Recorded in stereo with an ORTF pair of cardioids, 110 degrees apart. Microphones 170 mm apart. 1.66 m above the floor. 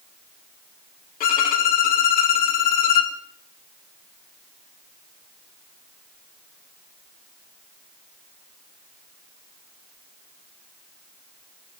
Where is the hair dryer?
No hair dryer in this recording.